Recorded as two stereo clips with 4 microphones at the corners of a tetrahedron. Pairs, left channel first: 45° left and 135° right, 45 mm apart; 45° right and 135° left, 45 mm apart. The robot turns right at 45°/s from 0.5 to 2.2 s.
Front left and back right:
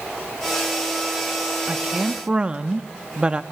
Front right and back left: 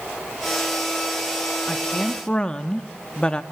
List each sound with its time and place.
1.7 s a woman speaking: 115° right, 0.8 m; by 3.4 s 90° right, 0.8 m